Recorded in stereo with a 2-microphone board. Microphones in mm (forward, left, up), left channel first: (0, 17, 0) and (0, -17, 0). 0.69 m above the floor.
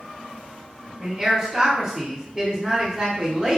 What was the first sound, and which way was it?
A man speaking, 20° right (ahead or behind).